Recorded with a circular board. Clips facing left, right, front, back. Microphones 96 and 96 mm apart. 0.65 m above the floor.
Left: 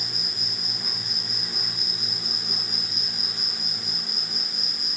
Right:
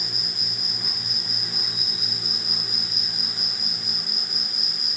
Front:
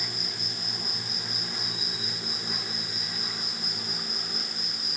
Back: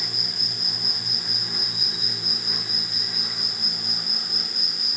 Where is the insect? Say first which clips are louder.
Even, back 1 dB; 170° right, 6.5 m.